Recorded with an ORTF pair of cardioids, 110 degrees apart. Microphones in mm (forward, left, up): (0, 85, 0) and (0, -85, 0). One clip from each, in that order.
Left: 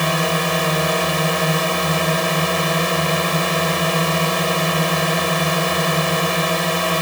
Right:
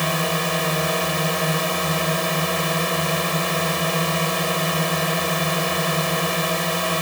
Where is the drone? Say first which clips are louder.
Left 3 dB; 25° left.